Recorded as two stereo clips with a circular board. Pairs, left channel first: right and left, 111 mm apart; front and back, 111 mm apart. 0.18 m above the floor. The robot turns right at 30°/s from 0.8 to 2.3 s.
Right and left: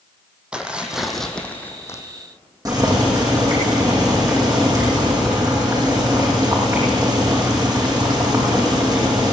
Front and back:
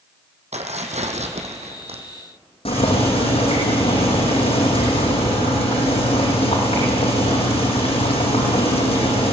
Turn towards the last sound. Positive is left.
turn(degrees=35)